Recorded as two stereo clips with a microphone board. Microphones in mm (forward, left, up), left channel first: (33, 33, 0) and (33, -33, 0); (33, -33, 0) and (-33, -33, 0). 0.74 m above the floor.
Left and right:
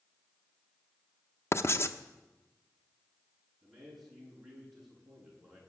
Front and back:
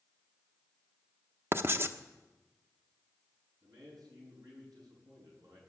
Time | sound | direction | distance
1.5 | writing | 130° left | 0.8 m
3.6 | a man speaking | straight behind | 8 m